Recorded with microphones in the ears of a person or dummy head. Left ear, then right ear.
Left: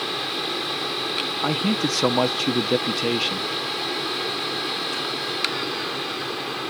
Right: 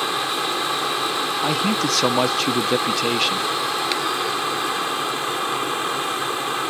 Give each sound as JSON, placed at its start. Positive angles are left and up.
{"t": 0.0, "sound": "a fan", "side_deg": -35}
{"t": 1.4, "sound": "a man speaking", "side_deg": -10}